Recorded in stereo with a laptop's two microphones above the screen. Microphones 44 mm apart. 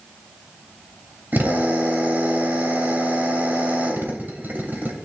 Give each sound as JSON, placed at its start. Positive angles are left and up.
{"t": 1.3, "sound": "a drill", "side_deg": -50, "distance_m": 2.5}